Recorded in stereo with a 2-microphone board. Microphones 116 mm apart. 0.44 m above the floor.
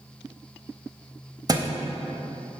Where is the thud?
35° right (ahead or behind), 0.6 m.